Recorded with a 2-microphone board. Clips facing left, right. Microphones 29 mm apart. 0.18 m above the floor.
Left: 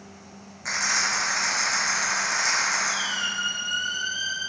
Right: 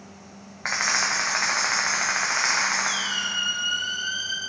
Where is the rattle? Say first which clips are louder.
Right 1 dB; 50° right (ahead or behind), 3.5 m.